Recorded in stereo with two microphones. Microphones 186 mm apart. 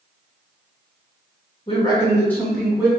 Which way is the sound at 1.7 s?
30° left (ahead or behind).